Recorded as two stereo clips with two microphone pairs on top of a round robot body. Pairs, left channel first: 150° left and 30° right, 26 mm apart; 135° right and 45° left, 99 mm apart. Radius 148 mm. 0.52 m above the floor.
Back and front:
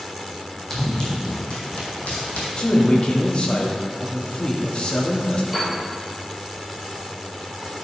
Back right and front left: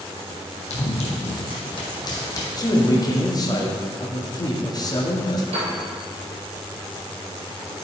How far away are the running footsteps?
About 1.7 m.